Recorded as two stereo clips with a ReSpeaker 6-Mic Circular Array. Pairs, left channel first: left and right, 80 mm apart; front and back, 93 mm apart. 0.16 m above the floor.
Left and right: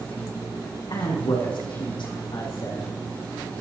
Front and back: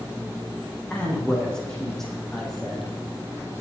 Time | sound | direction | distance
0.9 | a man speaking | 80° left | 7 m